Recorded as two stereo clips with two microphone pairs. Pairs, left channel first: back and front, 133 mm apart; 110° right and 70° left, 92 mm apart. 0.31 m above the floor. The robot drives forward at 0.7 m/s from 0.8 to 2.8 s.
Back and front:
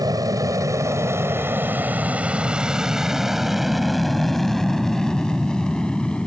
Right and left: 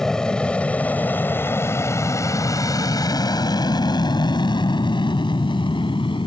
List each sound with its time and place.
0.0 s an aircraft: 30° right; by 6.3 s 100° right